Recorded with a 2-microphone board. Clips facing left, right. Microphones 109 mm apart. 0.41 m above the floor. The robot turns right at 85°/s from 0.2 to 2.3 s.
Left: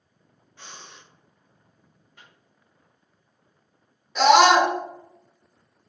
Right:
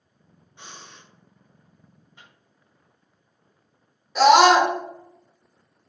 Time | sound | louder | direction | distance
0.6 | breathing | right 1 dB | 25° right | 1.1 m
2.2 | a microwave | even | 20° right (ahead or behind) | 1.9 m
4.2 | a scream | right 1 dB | 5° right (ahead or behind) | 0.9 m